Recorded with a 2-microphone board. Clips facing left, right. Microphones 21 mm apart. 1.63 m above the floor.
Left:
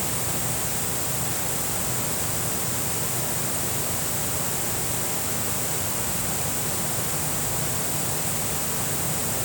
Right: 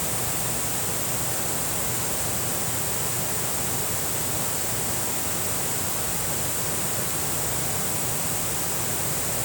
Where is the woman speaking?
I don't hear a woman speaking.